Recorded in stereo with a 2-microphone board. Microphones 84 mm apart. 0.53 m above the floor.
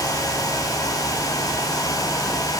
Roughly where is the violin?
No violin in this recording.